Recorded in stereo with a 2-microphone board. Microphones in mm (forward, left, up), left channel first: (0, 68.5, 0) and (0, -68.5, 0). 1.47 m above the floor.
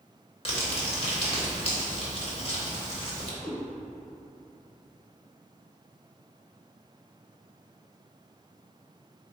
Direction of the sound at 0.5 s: 45° left (ahead or behind).